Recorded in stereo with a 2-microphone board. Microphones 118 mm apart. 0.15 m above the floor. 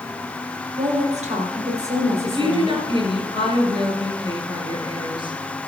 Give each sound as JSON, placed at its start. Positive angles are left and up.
{"t": 0.8, "sound": "a woman speaking", "side_deg": -65, "distance_m": 4.0}
{"t": 2.2, "sound": "a woman speaking", "side_deg": -40, "distance_m": 2.5}